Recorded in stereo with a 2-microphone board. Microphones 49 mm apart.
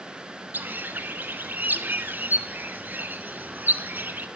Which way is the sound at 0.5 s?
40° right (ahead or behind).